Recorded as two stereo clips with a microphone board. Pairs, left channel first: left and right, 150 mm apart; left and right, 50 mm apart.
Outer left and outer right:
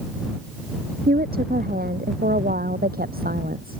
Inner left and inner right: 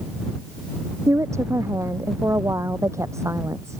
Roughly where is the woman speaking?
Right.